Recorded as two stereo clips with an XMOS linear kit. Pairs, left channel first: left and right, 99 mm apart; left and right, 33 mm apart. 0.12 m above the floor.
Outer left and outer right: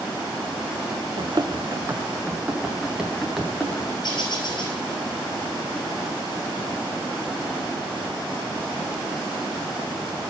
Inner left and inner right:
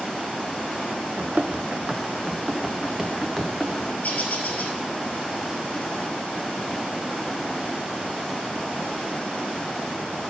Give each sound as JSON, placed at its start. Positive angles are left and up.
{"t": 1.2, "sound": "running footsteps", "side_deg": -55, "distance_m": 0.7}
{"t": 4.0, "sound": "a bird", "side_deg": 50, "distance_m": 1.8}